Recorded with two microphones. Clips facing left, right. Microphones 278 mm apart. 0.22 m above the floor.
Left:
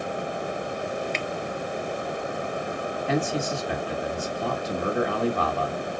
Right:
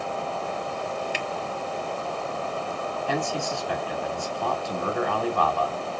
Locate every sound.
1.1 s a finger snap: 10° right (ahead or behind), 1.0 m
3.1 s a man speaking: 20° left (ahead or behind), 1.9 m